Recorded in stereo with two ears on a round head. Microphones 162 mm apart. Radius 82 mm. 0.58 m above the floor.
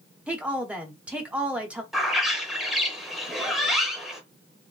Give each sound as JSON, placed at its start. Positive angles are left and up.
{"t": 0.3, "sound": "a woman speaking", "side_deg": -5, "distance_m": 0.9}
{"t": 1.9, "sound": "a bird", "side_deg": 0, "distance_m": 0.8}